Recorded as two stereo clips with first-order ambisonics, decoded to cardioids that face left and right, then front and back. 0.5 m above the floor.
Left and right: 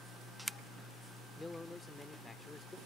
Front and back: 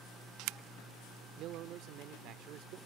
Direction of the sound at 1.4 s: 165° left.